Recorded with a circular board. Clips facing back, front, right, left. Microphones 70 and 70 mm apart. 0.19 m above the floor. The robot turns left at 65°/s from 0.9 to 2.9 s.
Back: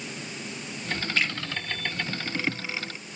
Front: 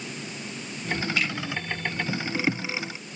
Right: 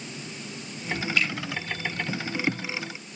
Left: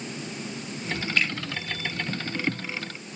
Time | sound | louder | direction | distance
1.2 | a finger snap | back 3 dB, left 1 dB | 135° left | 3 m